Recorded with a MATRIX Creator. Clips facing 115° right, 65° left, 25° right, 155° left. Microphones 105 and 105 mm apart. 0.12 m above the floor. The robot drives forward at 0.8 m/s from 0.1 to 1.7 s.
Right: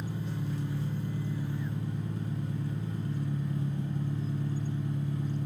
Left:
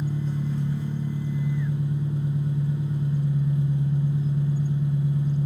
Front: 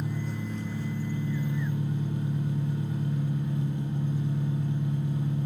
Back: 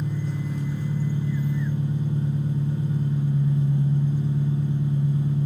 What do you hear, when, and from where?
0.0 s an engine running: 55° left, 1.4 m; by 5.5 s 140° left, 1.6 m